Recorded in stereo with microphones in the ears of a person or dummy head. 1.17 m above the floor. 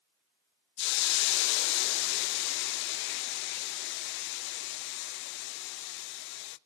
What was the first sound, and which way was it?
A hiss, 60° left (ahead or behind).